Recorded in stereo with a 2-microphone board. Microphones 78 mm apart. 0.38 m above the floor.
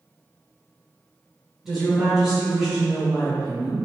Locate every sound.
1.6 s a woman speaking: 5° right (ahead or behind), 1.0 m; by 3.8 s centre (ahead or behind), 1.1 m